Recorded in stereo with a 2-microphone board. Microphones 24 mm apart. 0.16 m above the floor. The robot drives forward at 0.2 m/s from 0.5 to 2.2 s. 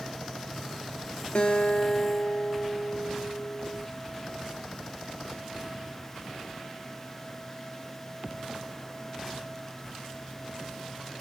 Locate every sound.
1.4 s a guitar: 50° left (ahead or behind), 0.6 m; by 3.9 s 40° left (ahead or behind), 0.7 m